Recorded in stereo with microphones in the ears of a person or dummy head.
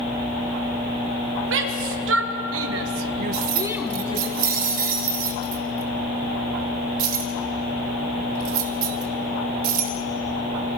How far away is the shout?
About 2.5 m.